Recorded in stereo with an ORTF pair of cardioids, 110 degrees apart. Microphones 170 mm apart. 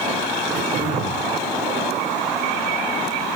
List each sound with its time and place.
0.5 s throat clearing: 50° right, 2.5 m